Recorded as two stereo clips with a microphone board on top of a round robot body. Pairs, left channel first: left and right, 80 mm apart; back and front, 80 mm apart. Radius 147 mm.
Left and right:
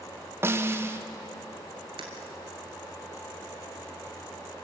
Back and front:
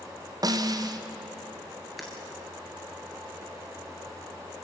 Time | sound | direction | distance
0.4 | a snare drum | 35° right | 1.2 m
2.0 | breaking glass | 90° right | 1.2 m